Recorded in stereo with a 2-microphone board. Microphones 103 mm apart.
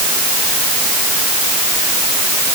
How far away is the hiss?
No hiss in this recording.